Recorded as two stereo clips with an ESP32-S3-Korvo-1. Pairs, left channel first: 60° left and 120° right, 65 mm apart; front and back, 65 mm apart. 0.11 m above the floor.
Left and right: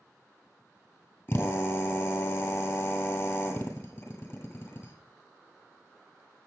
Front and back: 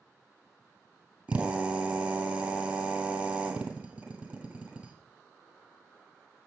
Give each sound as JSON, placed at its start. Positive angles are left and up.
{"t": 1.3, "sound": "a drill", "azimuth_deg": 115, "distance_m": 1.6}